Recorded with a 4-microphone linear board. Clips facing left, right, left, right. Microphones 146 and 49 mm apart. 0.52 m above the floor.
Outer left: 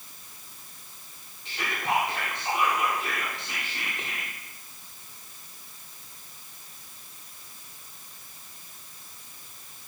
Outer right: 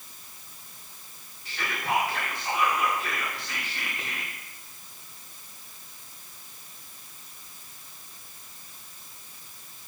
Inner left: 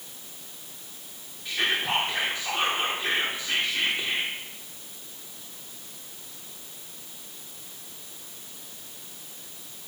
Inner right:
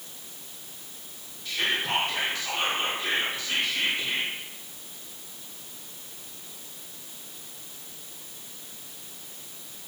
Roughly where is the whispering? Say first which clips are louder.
Outer left 1 dB, inner left 1 dB; left.